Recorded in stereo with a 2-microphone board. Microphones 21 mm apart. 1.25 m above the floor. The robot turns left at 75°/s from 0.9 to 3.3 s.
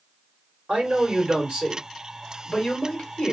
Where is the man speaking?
80° right, 1.7 m; by 3.3 s 100° left, 1.7 m.